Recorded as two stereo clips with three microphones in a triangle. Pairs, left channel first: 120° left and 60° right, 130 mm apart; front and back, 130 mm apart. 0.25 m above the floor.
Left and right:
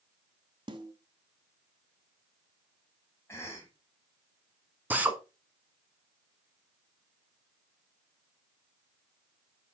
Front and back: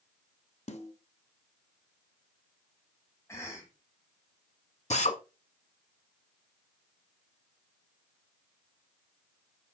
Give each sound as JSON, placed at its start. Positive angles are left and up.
{"t": 0.7, "sound": "a snare drum", "azimuth_deg": -15, "distance_m": 1.1}
{"t": 3.3, "sound": "a cough", "azimuth_deg": 60, "distance_m": 1.8}
{"t": 4.9, "sound": "a drill", "azimuth_deg": 15, "distance_m": 1.2}